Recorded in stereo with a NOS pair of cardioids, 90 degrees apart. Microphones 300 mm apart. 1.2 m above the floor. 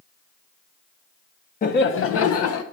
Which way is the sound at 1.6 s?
30° left.